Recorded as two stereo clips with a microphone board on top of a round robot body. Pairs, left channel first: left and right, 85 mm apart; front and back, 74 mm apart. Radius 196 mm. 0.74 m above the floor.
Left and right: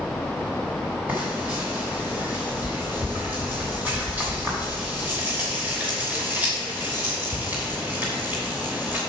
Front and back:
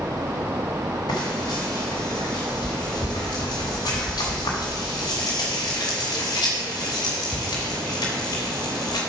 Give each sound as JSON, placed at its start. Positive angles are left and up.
{"t": 1.1, "sound": "frying", "azimuth_deg": -20, "distance_m": 0.7}